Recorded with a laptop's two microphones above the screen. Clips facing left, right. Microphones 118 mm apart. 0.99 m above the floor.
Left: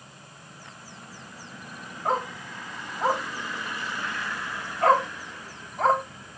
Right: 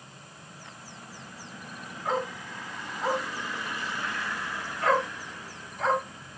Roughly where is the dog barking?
Left.